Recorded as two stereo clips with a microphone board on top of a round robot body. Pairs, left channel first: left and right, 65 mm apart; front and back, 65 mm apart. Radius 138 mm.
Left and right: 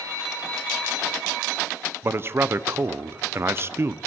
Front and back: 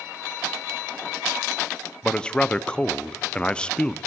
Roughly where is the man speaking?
Right.